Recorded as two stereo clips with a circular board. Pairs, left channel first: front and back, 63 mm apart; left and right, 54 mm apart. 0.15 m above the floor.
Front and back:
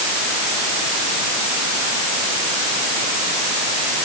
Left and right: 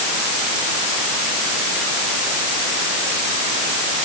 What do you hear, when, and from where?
Only background noise.